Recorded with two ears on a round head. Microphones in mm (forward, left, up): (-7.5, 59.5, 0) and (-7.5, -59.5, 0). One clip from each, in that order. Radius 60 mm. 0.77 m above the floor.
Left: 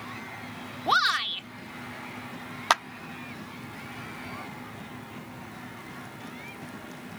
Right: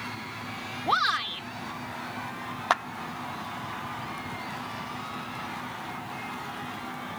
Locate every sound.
0.9 s a shout: 40° left (ahead or behind)
2.7 s a clap: 65° left (ahead or behind)